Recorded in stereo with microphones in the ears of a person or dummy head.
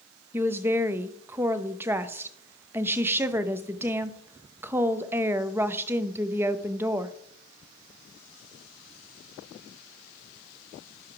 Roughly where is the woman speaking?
Centre.